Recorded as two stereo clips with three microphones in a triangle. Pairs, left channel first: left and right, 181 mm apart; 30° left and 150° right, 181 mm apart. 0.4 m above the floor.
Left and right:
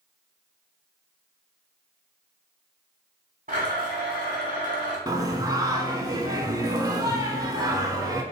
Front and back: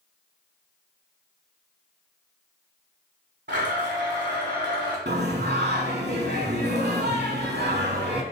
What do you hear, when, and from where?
3.5 s a blender: 135° right, 1.3 m
5.1 s singing: 160° right, 0.6 m